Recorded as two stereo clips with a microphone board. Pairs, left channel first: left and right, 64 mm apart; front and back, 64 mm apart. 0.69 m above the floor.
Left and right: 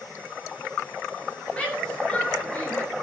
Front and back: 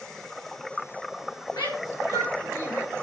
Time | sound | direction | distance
1.5 | a shout | 10° left | 8.5 m